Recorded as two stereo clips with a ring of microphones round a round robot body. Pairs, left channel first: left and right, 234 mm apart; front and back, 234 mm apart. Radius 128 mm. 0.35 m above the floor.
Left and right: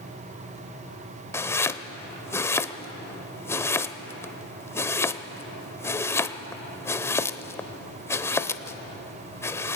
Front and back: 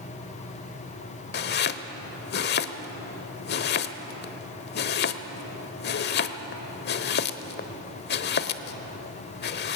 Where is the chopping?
15° left, 0.9 m.